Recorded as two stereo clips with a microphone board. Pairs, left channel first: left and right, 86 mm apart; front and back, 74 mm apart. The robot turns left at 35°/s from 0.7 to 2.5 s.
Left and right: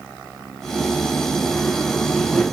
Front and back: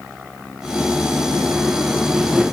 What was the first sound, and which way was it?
Only background noise.